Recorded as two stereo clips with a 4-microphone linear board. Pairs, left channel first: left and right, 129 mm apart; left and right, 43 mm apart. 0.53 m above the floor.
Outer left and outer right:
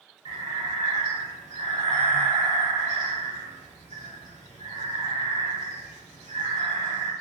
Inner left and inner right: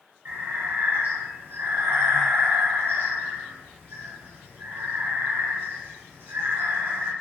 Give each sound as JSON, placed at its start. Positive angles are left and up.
{"t": 0.2, "sound": "breathing", "side_deg": -60, "distance_m": 0.7}